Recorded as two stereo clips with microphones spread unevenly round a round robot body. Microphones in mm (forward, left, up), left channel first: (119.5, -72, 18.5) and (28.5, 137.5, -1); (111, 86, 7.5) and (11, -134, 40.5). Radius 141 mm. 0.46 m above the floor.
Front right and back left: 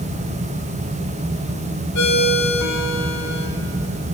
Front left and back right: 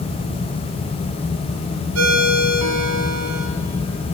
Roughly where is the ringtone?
Right.